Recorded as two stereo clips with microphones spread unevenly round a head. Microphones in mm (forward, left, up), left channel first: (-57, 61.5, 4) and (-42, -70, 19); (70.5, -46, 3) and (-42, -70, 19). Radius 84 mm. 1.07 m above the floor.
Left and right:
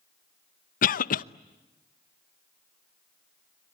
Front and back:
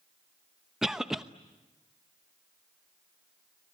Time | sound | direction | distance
0.8 | a cough | 105° left | 0.8 m